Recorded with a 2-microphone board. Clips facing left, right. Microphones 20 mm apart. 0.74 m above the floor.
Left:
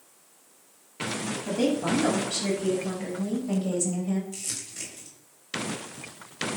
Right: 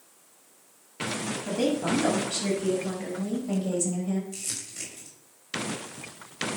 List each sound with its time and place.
1.4 s a woman speaking: 5° left (ahead or behind), 5.5 m; by 4.2 s 10° left (ahead or behind), 3.5 m
4.3 s crumpling: 5° left (ahead or behind), 3.5 m